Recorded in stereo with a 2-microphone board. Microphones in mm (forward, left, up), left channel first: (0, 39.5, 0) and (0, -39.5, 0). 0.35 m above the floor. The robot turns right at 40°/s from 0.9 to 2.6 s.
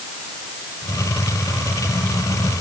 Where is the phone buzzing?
I don't hear a phone buzzing.